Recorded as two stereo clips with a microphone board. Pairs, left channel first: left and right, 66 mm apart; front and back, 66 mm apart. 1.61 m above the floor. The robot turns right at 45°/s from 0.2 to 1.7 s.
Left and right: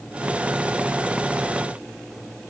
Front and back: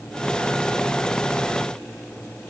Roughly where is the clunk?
I don't hear a clunk.